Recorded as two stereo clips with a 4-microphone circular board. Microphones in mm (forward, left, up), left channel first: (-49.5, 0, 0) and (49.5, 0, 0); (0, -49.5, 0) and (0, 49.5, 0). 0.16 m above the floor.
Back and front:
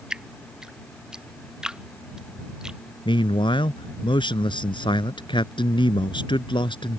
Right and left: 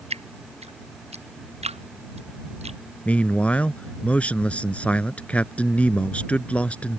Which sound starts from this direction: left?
Dripping, at 0.1 s.